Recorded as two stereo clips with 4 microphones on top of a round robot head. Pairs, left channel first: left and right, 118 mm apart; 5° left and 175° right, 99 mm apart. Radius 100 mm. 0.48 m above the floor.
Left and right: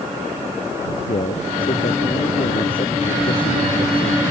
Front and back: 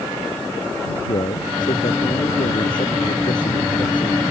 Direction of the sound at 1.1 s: 45° left.